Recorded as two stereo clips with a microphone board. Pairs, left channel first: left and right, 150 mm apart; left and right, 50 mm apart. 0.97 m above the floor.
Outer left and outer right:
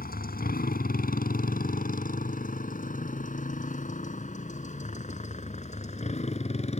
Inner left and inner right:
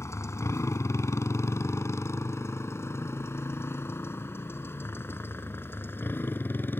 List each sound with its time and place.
0.0 s a motorcycle: 80° left; by 6.8 s 45° left (ahead or behind)